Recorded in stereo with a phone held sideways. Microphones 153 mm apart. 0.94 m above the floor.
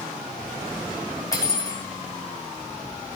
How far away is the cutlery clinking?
About 3 m.